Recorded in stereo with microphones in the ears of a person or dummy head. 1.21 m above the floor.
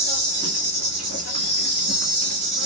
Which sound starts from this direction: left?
An insect, at 0.0 s.